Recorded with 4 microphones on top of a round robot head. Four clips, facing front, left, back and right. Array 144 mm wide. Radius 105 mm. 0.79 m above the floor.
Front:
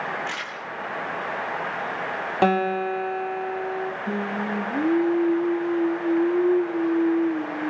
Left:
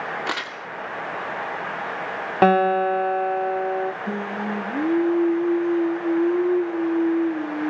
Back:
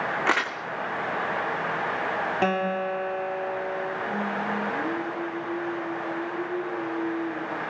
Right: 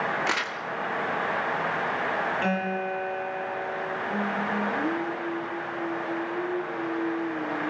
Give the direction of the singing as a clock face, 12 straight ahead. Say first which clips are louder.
Left 1 dB, front 1 dB; 10 o'clock.